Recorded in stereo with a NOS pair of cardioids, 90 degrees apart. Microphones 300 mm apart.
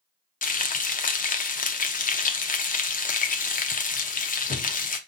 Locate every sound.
0.4 s frying: 30° left, 0.6 m